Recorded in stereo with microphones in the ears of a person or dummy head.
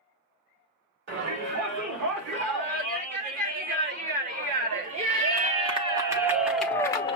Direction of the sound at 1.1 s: 50° right (ahead or behind).